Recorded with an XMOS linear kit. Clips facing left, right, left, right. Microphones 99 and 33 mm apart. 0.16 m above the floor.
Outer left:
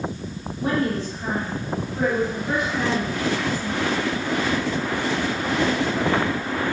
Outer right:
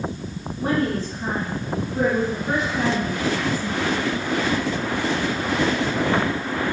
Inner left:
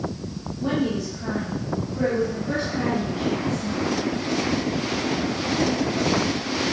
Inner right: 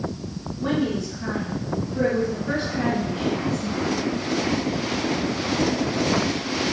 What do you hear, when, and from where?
0.6 s a woman speaking: 35° right (ahead or behind), 2.0 m; by 3.8 s 20° right (ahead or behind), 2.5 m